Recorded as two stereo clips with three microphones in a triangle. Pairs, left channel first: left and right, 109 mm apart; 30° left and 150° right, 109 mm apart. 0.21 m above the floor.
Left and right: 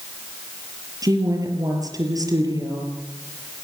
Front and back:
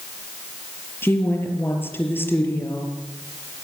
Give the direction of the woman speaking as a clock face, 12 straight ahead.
1 o'clock.